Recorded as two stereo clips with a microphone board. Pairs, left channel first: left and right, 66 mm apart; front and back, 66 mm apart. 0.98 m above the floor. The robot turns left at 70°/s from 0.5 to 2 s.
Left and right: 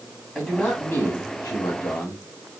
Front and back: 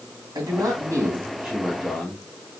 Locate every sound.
0.3 s a man speaking: 165° left, 2.5 m; by 2.2 s 60° left, 2.5 m